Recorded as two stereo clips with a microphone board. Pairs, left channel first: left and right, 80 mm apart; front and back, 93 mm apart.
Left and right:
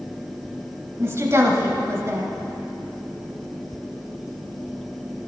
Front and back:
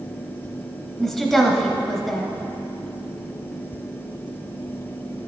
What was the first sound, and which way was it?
A woman speaking, 85° right.